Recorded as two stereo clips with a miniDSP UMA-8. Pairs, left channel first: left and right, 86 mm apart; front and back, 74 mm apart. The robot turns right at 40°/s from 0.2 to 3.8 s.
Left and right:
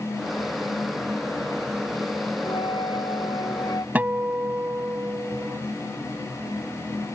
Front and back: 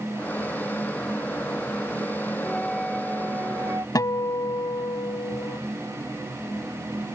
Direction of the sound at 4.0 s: 25° right.